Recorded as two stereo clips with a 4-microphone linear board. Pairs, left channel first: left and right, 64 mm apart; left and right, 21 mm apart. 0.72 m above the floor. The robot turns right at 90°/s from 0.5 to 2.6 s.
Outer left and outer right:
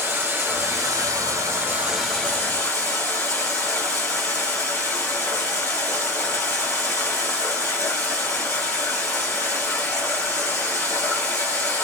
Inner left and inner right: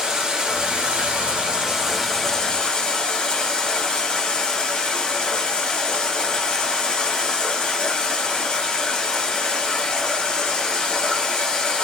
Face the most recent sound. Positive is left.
turn(degrees=50)